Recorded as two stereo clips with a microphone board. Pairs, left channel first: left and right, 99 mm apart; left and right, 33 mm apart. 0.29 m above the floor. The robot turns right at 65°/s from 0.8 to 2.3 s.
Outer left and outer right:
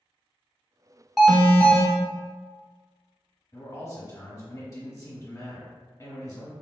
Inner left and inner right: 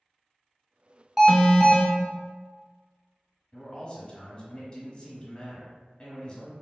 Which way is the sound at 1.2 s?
5° right.